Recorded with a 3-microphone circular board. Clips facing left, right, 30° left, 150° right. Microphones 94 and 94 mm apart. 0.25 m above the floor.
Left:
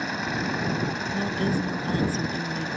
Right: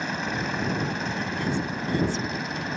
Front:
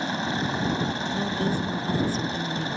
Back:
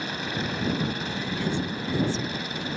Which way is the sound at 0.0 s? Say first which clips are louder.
Left 1 dB, front 4 dB; straight ahead.